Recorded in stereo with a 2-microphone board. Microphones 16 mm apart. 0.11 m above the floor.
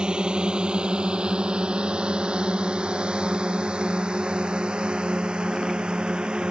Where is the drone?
60° right (ahead or behind); by 6.5 s 65° right (ahead or behind).